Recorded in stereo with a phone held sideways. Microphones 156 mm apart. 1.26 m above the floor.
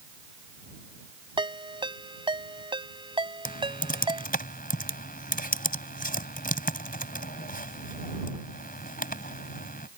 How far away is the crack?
No crack in this recording.